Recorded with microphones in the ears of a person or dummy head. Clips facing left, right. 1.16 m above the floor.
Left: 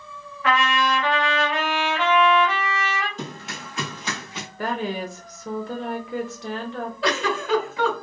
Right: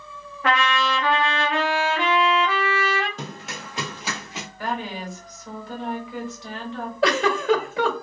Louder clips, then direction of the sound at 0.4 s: Left 1 dB; 35° right (ahead or behind).